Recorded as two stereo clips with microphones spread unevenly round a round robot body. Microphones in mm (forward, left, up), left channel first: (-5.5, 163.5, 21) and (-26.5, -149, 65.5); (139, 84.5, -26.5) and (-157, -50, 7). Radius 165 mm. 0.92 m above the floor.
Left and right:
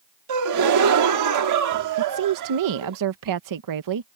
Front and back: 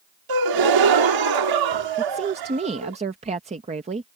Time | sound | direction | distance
0.3 | a gasp | 130° right | ?
2.0 | a woman speaking | 85° right | ?